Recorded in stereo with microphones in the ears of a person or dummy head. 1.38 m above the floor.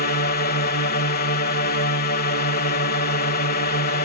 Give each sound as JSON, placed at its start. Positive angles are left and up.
{"t": 0.0, "sound": "a drone", "side_deg": 45}